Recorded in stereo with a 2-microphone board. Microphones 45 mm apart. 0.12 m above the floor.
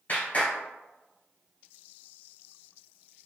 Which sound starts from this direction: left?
A clap, at 0.1 s.